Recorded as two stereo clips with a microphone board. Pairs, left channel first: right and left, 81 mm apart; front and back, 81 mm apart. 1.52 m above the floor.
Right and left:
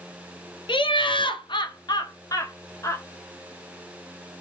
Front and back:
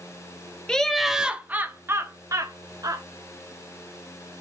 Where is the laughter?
80° right, 1.0 m; by 3.0 s 145° right, 1.6 m.